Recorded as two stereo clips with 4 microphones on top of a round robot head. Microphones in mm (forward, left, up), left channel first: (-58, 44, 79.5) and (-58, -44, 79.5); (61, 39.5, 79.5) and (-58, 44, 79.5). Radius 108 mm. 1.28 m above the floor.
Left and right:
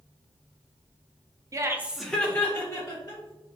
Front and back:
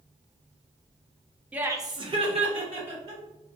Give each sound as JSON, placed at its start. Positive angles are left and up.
{"t": 1.5, "sound": "laughter", "azimuth_deg": -110, "distance_m": 0.6}